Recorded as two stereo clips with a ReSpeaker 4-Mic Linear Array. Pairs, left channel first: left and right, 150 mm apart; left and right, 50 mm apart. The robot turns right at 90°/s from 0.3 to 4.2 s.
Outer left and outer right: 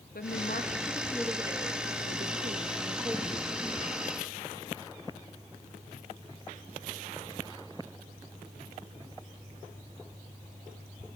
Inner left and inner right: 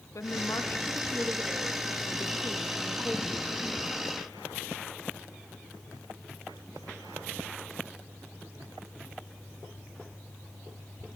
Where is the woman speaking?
95° left, 1.9 m; by 4.1 s 75° left, 1.9 m.